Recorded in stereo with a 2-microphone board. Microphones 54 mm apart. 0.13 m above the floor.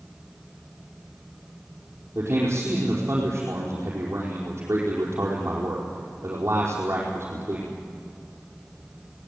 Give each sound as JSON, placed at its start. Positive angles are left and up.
{"t": 2.1, "sound": "a man speaking", "side_deg": -50, "distance_m": 5.0}